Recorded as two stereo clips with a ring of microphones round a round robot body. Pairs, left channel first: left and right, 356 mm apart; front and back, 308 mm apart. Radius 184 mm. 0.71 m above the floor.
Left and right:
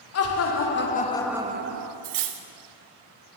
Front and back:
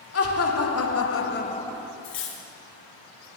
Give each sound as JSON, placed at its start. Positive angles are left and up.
{"t": 0.1, "sound": "laughter", "azimuth_deg": 40, "distance_m": 2.0}
{"t": 2.0, "sound": "cutlery clinking", "azimuth_deg": -55, "distance_m": 0.8}